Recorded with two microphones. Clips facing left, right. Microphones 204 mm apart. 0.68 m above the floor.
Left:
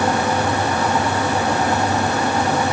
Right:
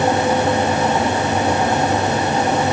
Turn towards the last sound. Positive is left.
No sound to turn to.